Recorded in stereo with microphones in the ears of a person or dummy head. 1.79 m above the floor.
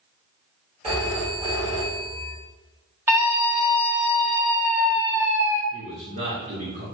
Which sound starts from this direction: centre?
A scream, at 3.1 s.